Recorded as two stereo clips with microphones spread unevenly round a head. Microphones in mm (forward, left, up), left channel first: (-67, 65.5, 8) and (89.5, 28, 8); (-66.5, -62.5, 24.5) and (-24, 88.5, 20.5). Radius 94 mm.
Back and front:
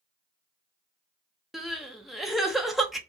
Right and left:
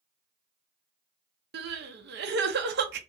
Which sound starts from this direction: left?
Crying, at 1.5 s.